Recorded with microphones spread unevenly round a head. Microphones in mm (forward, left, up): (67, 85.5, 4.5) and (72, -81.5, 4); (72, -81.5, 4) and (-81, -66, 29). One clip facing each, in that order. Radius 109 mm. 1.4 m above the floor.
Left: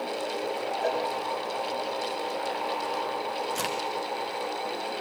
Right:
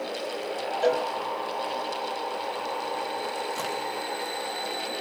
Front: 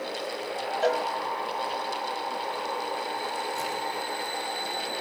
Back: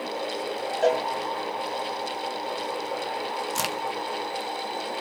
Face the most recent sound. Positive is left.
turn(degrees=165)